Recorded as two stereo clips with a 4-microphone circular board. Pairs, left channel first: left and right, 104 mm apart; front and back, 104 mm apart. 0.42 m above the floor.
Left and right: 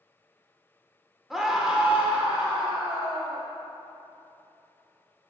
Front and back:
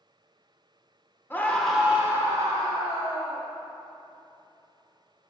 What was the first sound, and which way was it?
A scream, 5° right.